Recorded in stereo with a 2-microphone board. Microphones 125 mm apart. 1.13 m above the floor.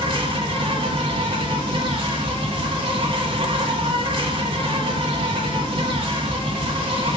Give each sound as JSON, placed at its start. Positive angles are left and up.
{"t": 0.0, "sound": "an insect", "side_deg": -45, "distance_m": 2.0}